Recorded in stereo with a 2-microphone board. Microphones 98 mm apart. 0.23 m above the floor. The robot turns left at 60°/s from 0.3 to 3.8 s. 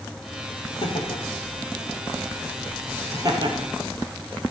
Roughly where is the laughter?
Left.